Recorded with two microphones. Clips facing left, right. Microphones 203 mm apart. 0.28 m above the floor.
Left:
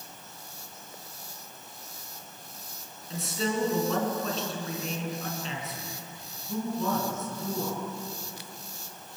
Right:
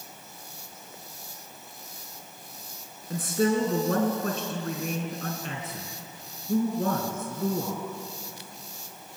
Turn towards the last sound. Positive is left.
turn(degrees=-55)  # may be behind; listen again after turning